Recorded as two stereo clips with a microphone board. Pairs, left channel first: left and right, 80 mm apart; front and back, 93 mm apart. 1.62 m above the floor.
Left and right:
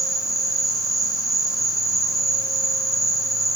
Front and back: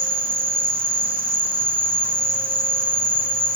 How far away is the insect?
About 0.8 m.